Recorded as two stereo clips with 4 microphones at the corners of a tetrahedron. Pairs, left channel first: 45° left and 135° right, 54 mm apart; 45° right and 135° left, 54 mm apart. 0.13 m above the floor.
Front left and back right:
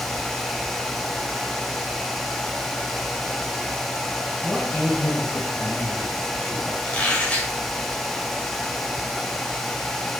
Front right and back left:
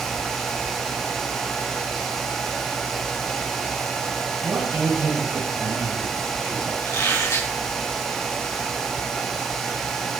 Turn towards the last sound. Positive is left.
turn(degrees=-25)